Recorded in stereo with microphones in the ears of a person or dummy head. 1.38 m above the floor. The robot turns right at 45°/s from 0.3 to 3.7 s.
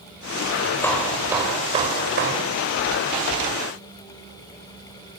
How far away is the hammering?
About 4.5 m.